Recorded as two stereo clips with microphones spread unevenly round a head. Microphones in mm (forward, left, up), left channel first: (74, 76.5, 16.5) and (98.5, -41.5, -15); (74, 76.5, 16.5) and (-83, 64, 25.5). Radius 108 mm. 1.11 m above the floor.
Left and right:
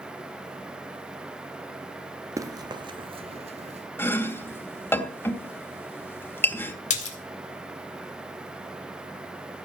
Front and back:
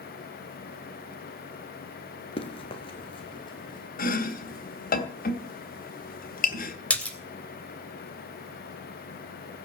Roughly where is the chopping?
Ahead left.